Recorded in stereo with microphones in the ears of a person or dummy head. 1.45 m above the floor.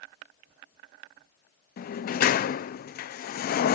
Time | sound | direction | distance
1.8 | a sliding door | 50° left (ahead or behind) | ?